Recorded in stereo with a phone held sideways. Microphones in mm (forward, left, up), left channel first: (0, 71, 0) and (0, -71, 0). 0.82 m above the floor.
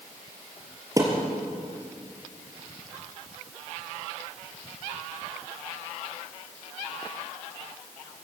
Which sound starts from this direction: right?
A thud, at 1.0 s.